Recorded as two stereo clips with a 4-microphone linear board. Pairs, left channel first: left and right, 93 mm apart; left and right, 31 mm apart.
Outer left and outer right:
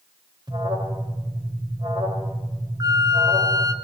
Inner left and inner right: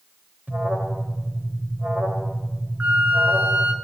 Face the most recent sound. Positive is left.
turn(degrees=-45)  # may be behind; listen again after turning